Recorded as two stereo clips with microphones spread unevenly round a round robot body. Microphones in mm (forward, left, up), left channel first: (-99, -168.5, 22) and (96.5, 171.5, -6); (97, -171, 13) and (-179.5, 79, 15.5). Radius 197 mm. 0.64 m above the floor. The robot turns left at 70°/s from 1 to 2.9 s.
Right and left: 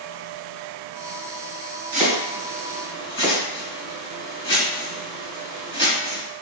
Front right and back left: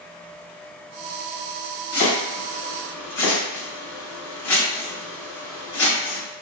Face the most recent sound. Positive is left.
turn(degrees=-40)